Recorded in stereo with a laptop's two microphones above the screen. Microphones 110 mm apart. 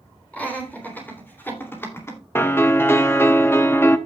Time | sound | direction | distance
0.3 | laughter | 15° left (ahead or behind) | 3.5 m
2.4 | a piano | 20° left (ahead or behind) | 0.7 m